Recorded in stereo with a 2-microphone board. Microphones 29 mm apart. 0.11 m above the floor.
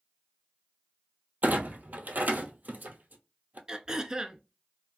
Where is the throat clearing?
25° right (ahead or behind), 0.5 m.